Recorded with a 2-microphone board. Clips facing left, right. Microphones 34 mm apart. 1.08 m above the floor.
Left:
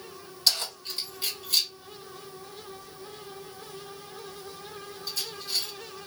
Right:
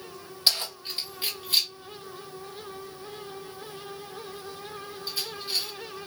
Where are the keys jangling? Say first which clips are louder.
Right 1 dB; 20° right (ahead or behind), 1.7 m.